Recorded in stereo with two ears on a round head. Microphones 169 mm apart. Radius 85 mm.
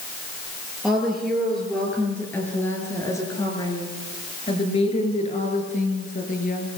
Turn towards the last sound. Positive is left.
turn(degrees=50)  # may be behind; listen again after turning